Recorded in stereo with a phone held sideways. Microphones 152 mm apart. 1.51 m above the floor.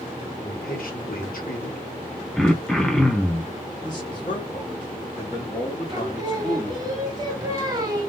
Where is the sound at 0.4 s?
80° left, 1.3 m.